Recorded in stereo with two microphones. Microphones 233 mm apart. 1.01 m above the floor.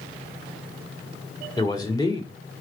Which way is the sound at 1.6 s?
15° left (ahead or behind).